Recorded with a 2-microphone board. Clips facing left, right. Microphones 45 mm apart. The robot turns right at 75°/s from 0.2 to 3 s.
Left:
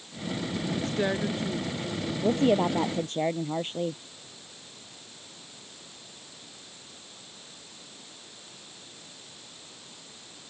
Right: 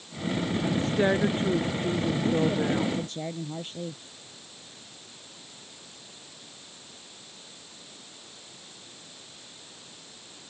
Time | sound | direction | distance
0.7 | a woman speaking | 170° left | ?
2.2 | a woman speaking | 75° left | ?